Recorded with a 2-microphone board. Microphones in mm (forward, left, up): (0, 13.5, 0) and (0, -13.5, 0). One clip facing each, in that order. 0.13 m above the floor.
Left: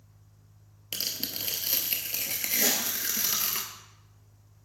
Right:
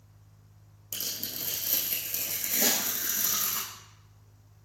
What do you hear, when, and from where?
0.9 s tearing paper: 55° left (ahead or behind), 1.1 m
2.6 s a snare drum: 20° right (ahead or behind), 2 m